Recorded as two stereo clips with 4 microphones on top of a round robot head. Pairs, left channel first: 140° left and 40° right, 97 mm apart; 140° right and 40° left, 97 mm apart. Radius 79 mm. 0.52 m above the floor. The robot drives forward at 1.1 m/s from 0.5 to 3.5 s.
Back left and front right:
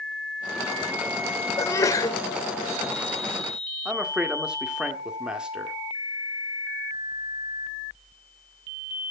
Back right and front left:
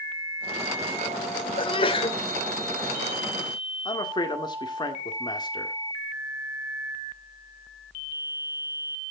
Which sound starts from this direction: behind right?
A man speaking, at 3.9 s.